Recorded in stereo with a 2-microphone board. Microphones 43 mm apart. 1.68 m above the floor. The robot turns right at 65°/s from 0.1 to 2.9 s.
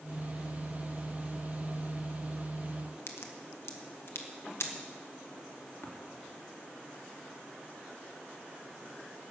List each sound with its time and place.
3.1 s a crack: 75° left (ahead or behind), 1.4 m
5.8 s tapping: 70° left (ahead or behind), 2.5 m